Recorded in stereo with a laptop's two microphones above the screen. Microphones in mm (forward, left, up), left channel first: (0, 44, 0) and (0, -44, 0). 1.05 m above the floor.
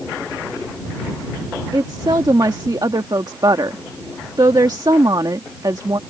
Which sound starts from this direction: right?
A woman speaking, at 1.7 s.